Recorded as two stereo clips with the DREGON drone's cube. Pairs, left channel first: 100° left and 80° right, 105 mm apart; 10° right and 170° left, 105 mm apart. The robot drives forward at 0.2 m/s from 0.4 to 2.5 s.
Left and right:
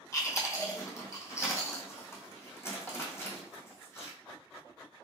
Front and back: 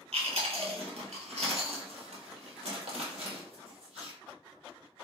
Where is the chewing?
160° left, 1.2 m; by 4.1 s 165° left, 1.6 m.